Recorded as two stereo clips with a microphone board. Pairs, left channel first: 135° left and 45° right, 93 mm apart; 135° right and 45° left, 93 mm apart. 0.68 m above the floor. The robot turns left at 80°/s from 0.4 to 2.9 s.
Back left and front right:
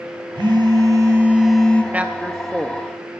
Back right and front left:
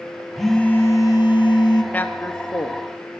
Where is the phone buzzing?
45° right, 0.8 m; by 1.8 s 160° right, 0.8 m.